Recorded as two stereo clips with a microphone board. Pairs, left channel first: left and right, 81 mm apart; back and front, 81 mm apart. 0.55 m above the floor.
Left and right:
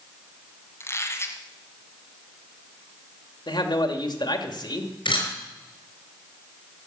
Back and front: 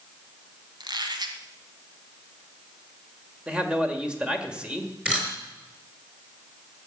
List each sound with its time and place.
0.8 s a squeak: 30° left, 1.7 m
3.5 s a man speaking: 80° left, 1.8 m
5.0 s a camera shutter: 80° left, 5 m